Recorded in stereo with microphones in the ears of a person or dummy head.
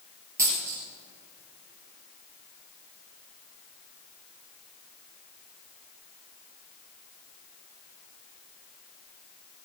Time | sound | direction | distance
0.4 | a dropped coin | 15° right (ahead or behind) | 3.5 m